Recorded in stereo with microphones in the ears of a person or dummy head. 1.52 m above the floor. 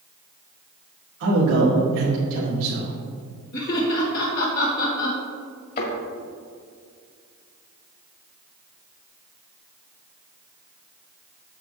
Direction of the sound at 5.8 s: 50° left (ahead or behind).